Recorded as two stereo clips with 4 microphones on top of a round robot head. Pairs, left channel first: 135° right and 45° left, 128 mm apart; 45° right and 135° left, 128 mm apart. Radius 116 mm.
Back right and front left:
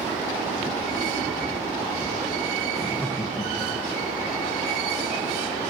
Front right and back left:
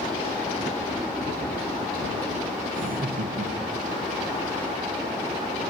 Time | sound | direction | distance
2.7 | laughter | 135° left | 0.7 m